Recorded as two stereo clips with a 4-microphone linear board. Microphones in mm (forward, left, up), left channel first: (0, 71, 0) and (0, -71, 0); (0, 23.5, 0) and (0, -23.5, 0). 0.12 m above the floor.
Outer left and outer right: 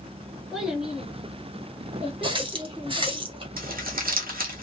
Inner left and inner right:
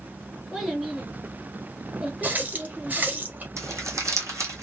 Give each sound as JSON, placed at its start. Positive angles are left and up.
{"t": 0.5, "sound": "a child speaking", "side_deg": -5, "distance_m": 1.2}
{"t": 2.2, "sound": "a running tap", "side_deg": -35, "distance_m": 1.4}
{"t": 3.6, "sound": "crumpling", "side_deg": -80, "distance_m": 1.4}